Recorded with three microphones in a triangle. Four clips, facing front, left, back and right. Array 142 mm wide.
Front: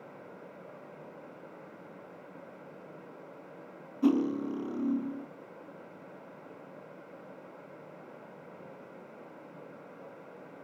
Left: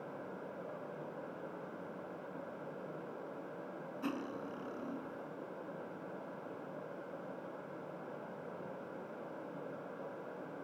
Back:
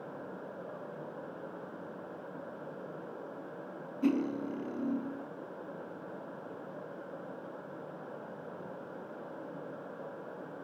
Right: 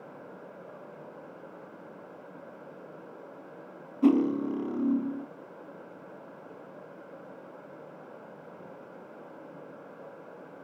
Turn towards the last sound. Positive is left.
turn(degrees=-80)